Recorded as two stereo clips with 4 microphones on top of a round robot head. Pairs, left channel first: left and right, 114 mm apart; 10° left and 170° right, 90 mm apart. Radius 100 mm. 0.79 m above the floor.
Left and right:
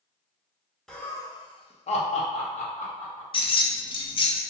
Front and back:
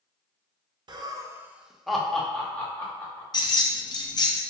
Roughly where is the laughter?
Behind.